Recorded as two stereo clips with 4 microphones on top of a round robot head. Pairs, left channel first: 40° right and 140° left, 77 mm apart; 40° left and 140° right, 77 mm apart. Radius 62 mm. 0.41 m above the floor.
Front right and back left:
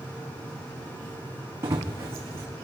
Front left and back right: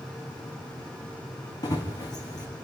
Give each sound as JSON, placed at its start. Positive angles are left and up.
{"t": 1.6, "sound": "running footsteps", "azimuth_deg": 80, "distance_m": 2.5}